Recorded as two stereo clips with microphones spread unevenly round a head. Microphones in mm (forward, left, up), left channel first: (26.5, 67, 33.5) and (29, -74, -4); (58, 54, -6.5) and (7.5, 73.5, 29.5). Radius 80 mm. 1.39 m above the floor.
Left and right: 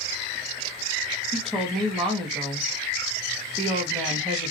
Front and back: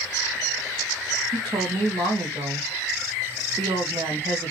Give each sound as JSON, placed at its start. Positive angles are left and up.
{"t": 1.3, "sound": "a woman speaking", "azimuth_deg": 180, "distance_m": 1.6}